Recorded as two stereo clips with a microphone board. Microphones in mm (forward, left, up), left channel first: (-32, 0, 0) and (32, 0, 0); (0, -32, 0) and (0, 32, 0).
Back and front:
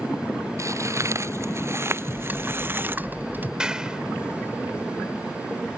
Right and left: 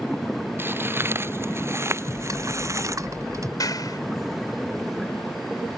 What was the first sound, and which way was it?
Footsteps, 35° left.